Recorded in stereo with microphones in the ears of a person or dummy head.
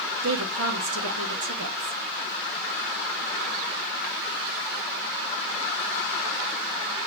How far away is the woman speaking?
About 1.9 m.